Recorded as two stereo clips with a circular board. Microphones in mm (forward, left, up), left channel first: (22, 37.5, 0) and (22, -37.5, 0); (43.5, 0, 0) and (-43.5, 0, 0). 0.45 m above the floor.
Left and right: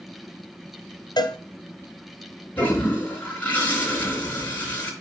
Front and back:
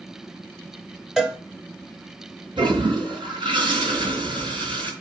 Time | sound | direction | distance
1.2 | a cowbell | 95° left | 1.2 m
2.6 | a toilet flushing | 155° left | 5.5 m